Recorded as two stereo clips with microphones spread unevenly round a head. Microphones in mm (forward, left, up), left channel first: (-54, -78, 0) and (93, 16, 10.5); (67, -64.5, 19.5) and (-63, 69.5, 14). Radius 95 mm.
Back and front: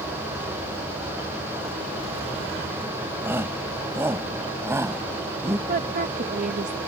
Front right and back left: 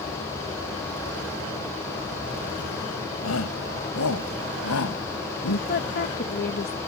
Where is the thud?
I don't hear a thud.